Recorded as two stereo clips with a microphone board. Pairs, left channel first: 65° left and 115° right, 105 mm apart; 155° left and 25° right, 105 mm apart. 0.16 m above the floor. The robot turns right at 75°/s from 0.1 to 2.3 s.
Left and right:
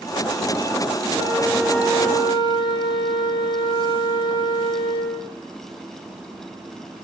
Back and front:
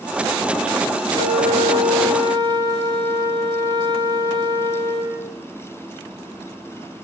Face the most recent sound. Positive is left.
turn(degrees=25)